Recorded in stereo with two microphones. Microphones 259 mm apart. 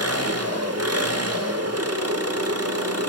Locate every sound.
0.0 s an engine running: 65° right (ahead or behind), 2 m